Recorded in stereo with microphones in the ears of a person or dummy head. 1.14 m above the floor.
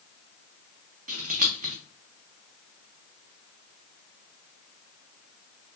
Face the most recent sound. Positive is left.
turn(degrees=-45)  # may be behind; listen again after turning